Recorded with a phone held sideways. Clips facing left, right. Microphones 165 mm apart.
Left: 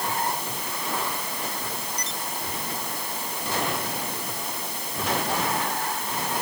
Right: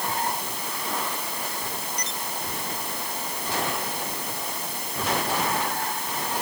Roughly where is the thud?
No thud in this recording.